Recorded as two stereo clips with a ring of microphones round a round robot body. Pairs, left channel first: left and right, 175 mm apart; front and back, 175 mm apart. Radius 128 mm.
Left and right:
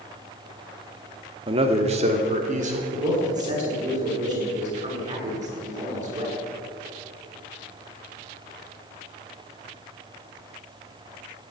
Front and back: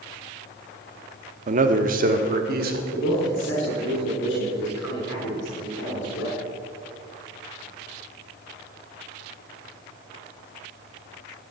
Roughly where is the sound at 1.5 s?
Behind right.